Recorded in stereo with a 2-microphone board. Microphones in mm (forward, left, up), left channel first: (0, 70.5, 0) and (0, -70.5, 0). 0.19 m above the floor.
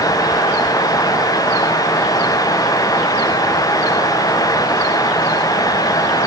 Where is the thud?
I don't hear a thud.